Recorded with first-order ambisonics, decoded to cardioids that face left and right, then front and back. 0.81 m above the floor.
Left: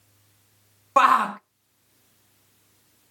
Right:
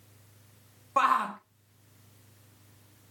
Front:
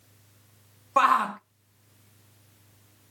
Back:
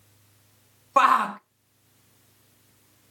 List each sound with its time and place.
1.0 s a shout: 105° left, 0.5 m